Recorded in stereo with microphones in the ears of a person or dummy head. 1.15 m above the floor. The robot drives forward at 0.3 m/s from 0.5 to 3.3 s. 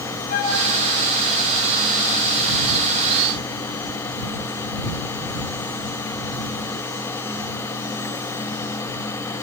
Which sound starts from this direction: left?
A flute, at 0.3 s.